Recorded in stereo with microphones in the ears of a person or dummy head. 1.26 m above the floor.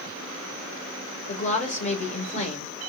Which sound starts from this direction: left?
A woman speaking, at 1.3 s.